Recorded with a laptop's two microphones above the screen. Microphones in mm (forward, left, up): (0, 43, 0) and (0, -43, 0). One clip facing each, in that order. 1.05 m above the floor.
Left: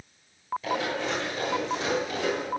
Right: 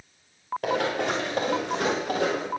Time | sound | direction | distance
0.6 | running footsteps | 70° right (ahead or behind) | 4.5 m